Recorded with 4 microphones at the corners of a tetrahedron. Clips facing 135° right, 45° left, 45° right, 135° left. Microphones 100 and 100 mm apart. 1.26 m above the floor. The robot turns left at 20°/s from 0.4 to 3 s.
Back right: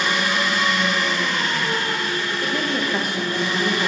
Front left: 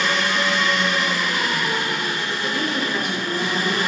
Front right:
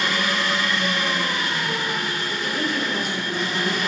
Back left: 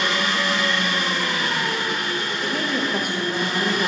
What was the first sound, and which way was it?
An engine running, 150° left.